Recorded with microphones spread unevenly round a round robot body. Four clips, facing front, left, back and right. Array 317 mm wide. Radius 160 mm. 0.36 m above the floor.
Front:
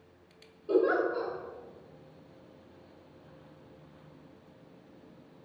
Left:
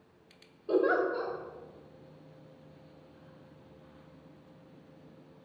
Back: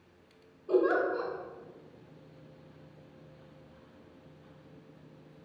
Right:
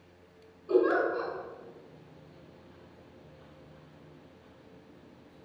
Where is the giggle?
130° left, 1.4 m.